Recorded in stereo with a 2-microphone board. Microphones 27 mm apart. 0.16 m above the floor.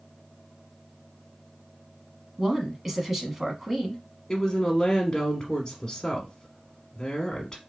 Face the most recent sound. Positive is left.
turn(degrees=20)  # may be behind; listen again after turning